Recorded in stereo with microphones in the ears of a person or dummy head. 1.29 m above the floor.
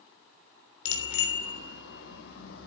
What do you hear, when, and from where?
0.8 s a bicycle bell: 85° left, 3 m; by 2.7 s 80° left, 4.5 m